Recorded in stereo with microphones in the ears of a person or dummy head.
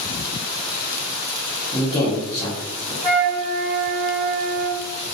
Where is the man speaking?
15° left (ahead or behind), 0.8 m.